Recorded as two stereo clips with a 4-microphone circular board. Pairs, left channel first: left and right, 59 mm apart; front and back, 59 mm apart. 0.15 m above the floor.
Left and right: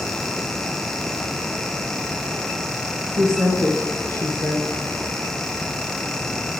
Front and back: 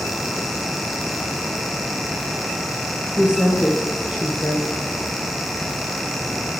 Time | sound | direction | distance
3.2 | a woman speaking | 115° right | 3 m